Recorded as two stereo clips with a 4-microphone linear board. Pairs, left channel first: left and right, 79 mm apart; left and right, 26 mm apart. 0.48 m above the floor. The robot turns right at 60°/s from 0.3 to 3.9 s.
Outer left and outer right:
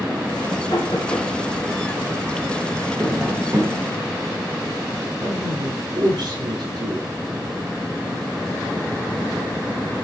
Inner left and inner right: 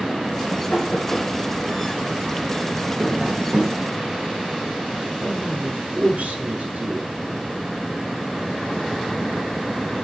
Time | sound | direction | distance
0.7 | knocking | 75° left (ahead or behind) | 7.5 m
3.0 | tapping | 175° left | 4.5 m
5.2 | a man speaking | 75° right (ahead or behind) | 7 m